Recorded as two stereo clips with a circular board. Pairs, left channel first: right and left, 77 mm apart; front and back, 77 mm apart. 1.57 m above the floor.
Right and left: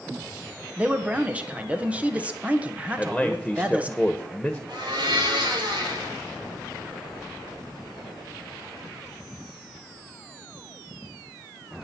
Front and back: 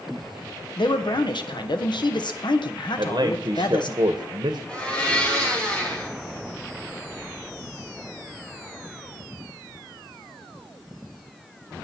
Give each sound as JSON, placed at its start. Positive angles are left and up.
{"t": 0.8, "sound": "a man speaking", "azimuth_deg": 15, "distance_m": 1.5}
{"t": 3.0, "sound": "a man speaking", "azimuth_deg": 180, "distance_m": 1.2}
{"t": 4.7, "sound": "a blender", "azimuth_deg": 75, "distance_m": 4.0}